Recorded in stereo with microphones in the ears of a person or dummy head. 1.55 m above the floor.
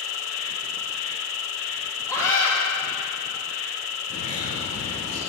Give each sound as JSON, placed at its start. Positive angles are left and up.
{"t": 0.0, "sound": "an insect", "side_deg": 75, "distance_m": 0.9}
{"t": 2.1, "sound": "a scream", "side_deg": 15, "distance_m": 3.0}
{"t": 4.1, "sound": "a bird", "side_deg": 35, "distance_m": 3.0}